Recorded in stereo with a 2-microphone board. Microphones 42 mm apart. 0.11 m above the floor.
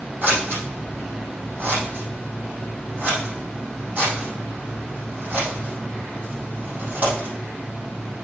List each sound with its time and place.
0.2 s scissors: 45° right (ahead or behind), 4 m